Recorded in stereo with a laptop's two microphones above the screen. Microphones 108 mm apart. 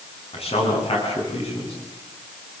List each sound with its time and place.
0.3 s a man speaking: 65° left (ahead or behind), 9.5 m